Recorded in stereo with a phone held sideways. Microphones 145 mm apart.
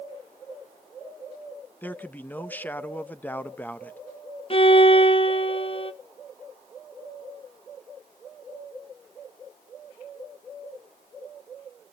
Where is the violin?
40° left (ahead or behind), 0.8 m.